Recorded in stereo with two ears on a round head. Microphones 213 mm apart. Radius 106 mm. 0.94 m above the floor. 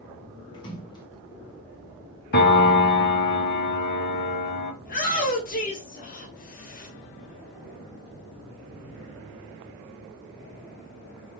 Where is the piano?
45° left (ahead or behind), 1.0 m.